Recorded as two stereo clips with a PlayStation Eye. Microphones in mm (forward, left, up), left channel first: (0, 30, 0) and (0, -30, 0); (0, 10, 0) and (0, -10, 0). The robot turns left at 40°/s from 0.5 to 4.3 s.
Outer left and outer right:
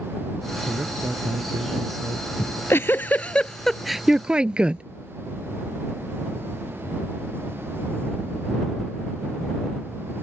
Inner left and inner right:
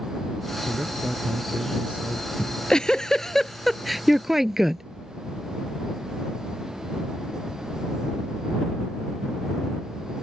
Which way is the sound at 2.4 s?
55° left.